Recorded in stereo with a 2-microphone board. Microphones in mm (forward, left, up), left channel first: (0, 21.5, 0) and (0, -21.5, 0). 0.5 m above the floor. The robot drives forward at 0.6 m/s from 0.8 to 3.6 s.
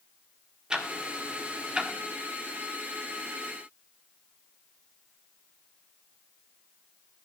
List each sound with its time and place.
0.7 s ticking: 20° right (ahead or behind), 1.1 m